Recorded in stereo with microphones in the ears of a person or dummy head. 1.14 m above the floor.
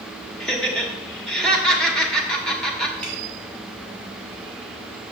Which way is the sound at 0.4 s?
5° left (ahead or behind).